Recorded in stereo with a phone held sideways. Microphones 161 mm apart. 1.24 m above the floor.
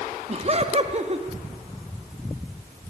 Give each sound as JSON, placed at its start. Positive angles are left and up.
{"t": 0.3, "sound": "laughter", "side_deg": -40, "distance_m": 2.0}